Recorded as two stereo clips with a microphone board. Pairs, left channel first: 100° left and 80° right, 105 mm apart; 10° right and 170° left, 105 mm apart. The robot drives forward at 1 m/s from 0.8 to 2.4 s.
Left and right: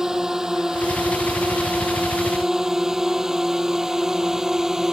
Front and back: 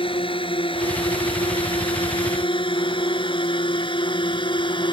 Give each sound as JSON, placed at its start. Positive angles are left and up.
{"t": 0.0, "sound": "a drone", "azimuth_deg": 5}